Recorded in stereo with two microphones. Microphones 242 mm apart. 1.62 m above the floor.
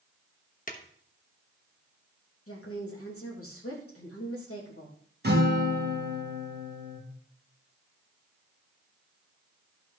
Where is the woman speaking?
80° left, 3.5 m.